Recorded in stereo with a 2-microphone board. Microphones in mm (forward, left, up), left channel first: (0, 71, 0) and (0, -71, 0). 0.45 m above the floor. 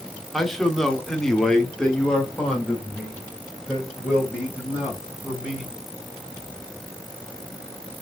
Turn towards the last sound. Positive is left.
turn(degrees=5)  # may be behind; listen again after turning